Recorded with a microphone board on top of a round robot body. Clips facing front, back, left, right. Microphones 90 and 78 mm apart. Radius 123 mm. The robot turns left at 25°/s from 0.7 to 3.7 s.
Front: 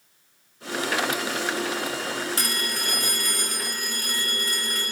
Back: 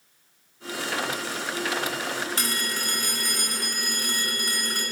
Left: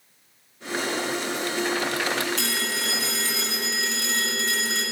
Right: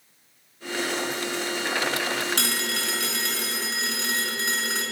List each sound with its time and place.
2.4 s a phone ringing: 85° right, 4 m; by 4.8 s 120° right, 4 m